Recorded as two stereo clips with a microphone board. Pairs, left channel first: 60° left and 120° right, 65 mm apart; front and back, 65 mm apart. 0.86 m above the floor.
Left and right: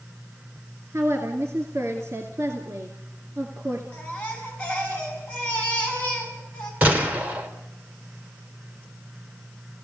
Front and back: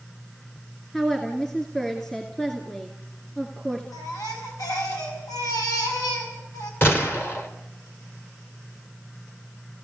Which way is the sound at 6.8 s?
50° right.